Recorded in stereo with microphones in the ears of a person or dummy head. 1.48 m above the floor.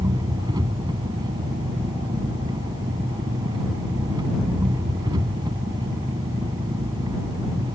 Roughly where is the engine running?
Centre.